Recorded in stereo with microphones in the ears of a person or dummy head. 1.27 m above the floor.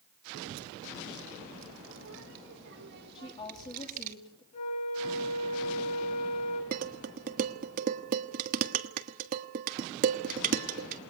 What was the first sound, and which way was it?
A child speaking, 85° right.